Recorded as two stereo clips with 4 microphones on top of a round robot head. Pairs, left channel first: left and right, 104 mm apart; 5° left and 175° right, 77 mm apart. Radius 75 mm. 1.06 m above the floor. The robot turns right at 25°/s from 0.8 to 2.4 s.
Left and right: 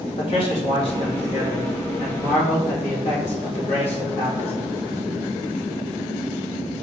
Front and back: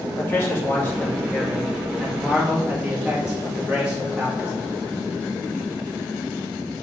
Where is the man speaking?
65° left, 2.5 m; by 4.8 s 105° left, 2.5 m.